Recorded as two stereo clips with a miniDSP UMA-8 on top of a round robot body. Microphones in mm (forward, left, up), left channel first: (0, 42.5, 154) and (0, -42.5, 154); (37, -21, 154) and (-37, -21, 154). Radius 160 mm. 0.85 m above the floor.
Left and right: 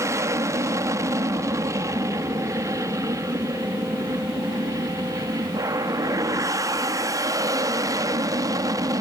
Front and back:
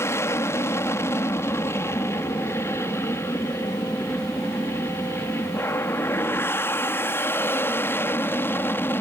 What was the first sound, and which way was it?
An aircraft, 45° right.